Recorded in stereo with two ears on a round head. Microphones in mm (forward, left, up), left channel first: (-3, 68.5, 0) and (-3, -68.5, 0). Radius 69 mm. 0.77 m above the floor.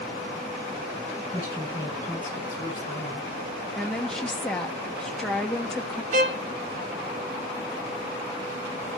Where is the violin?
55° right (ahead or behind), 1.2 m.